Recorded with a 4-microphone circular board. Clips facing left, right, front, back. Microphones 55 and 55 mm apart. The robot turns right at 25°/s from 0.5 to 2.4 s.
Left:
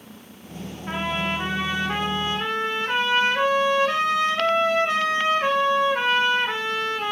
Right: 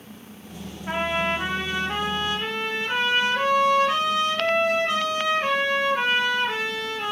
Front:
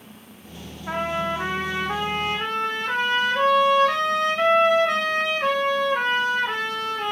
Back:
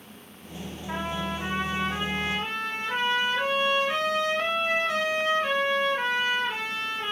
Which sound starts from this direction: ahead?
A trumpet, at 0.9 s.